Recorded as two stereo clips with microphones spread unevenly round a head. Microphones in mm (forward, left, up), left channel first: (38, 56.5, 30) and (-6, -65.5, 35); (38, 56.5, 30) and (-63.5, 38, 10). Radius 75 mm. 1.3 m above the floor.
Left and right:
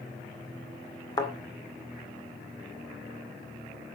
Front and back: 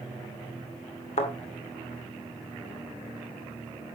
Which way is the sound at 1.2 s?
10° left.